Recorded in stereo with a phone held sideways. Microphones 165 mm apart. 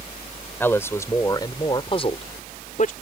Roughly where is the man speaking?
Centre.